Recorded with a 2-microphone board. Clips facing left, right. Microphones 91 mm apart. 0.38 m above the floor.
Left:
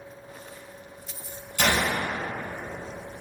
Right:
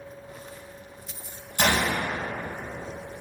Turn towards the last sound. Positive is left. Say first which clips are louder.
# even
turn(degrees=-30)  # may be behind; listen again after turning